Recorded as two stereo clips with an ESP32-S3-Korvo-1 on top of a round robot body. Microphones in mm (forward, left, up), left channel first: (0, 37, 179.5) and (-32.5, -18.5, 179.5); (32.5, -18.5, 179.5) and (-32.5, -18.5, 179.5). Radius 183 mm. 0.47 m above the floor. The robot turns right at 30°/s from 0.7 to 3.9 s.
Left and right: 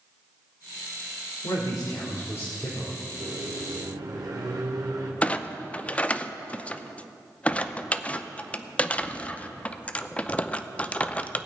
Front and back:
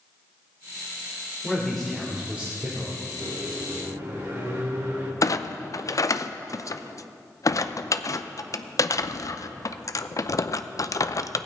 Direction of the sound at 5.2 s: 5° right.